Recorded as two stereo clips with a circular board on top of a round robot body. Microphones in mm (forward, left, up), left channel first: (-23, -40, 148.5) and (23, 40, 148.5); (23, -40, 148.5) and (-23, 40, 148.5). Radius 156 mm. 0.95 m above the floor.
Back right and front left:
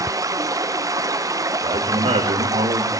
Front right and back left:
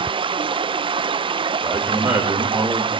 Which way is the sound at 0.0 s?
110° left.